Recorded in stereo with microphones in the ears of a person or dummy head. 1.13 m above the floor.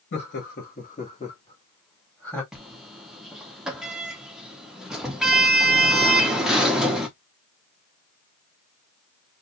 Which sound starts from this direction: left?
Laughter, at 0.1 s.